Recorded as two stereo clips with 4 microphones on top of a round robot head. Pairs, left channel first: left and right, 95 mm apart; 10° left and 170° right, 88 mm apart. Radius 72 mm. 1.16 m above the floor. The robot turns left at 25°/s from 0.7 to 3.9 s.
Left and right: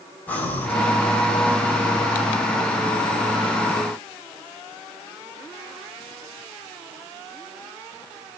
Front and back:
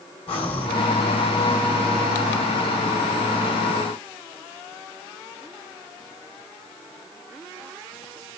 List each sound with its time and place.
0.3 s breathing: 15° left, 2.0 m